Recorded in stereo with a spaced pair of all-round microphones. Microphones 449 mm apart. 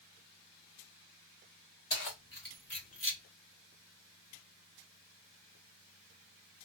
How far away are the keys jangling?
About 1.2 m.